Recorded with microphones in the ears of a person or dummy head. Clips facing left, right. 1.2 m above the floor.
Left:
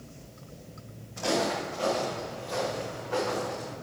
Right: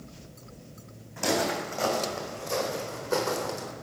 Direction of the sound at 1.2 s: 50° right (ahead or behind).